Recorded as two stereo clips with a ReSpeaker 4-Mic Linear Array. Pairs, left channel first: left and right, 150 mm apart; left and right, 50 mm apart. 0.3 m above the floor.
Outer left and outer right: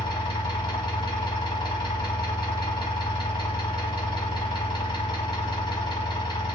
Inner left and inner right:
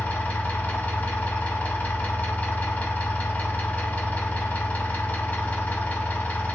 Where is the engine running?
35° left (ahead or behind), 0.9 m.